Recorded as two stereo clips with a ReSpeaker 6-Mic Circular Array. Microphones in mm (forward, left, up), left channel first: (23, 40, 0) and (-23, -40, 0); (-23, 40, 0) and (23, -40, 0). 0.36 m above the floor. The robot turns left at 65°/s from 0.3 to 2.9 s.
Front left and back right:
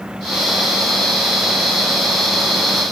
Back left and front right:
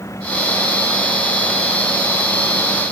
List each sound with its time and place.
Only background noise.